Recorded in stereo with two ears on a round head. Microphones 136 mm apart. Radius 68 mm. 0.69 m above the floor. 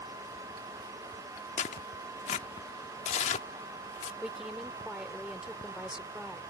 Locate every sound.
1.6 s tearing paper: 50° left (ahead or behind)
4.2 s a woman speaking: 5° right (ahead or behind)